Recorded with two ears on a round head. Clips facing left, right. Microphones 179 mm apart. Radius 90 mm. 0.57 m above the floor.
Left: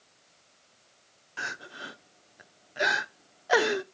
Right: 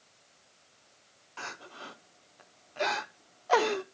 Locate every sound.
1.4 s crying: 15° left (ahead or behind), 0.7 m